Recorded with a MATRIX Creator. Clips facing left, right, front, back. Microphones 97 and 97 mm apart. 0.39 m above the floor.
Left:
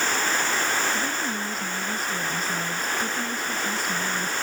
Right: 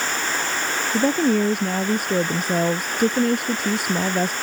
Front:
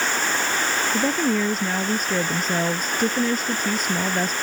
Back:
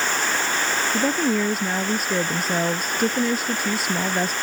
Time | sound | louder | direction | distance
0.9 | a woman speaking | right 10 dB, back 1 dB | 95° right | ?